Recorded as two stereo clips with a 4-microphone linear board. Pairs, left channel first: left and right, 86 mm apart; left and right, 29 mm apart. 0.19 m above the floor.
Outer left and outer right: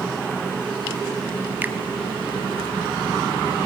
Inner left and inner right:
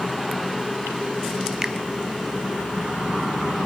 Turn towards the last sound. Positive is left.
turn(degrees=-20)  # may be behind; listen again after turning